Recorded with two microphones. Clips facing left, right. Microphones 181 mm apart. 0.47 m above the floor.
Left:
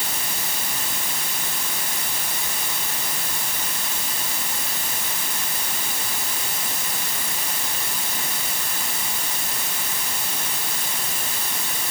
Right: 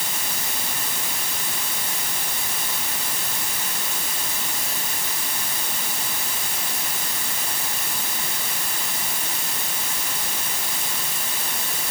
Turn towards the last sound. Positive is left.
No sound to turn to.